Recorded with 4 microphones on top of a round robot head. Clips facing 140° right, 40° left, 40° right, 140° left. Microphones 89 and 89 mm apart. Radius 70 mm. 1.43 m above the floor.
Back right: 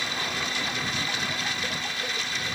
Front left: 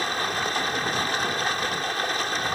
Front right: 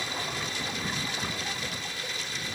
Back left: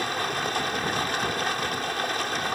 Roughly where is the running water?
Left.